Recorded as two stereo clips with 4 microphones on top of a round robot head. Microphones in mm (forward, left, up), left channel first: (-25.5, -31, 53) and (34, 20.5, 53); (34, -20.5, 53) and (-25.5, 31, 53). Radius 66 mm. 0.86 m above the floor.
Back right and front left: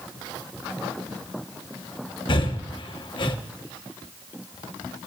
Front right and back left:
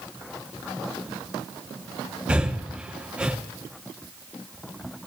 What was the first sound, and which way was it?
Breathing, 140° right.